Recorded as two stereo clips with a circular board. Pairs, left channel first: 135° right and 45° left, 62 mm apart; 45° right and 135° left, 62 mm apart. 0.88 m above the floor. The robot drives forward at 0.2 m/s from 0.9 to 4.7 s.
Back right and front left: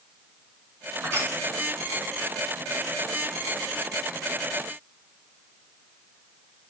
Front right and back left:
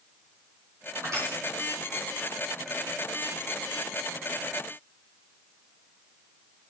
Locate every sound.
1.0 s crushing: 100° left, 3 m